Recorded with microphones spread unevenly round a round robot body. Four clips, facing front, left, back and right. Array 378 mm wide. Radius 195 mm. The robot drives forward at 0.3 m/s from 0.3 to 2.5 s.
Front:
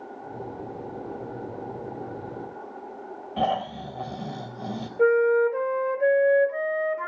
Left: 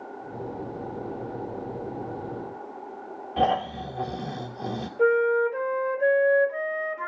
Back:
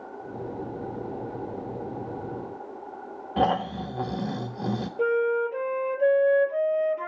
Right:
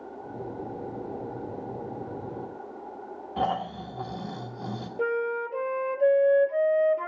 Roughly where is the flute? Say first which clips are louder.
Left 7 dB, front 5 dB; behind right.